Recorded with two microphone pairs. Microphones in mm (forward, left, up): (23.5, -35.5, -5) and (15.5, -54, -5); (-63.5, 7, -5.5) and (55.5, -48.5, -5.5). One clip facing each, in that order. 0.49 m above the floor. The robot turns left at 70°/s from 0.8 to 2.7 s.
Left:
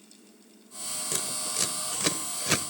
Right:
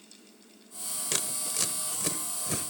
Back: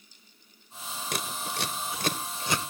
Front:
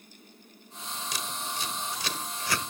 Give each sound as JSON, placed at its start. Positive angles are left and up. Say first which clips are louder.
{"t": 1.1, "sound": "scissors", "louder": "even, back 4 dB", "azimuth_deg": -175, "distance_m": 1.1}